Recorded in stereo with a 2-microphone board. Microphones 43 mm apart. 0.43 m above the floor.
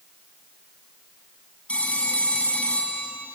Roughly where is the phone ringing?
Left.